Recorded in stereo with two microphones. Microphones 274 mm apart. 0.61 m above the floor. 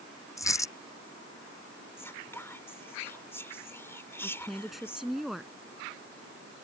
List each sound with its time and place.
0.4 s a dropped coin: 10° left (ahead or behind)
2.0 s whispering: 10° left (ahead or behind)
4.2 s a woman speaking: centre (ahead or behind)